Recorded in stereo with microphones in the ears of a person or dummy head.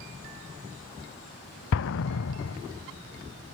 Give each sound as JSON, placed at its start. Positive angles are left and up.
{"t": 1.7, "sound": "an explosion", "side_deg": 65, "distance_m": 0.5}